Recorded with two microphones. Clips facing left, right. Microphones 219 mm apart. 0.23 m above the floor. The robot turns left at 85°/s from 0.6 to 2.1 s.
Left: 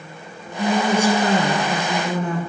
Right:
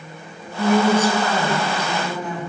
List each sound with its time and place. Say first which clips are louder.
0.6 s a woman speaking: right 2 dB; 160° right, 1.7 m; by 2.4 s 75° left, 1.7 m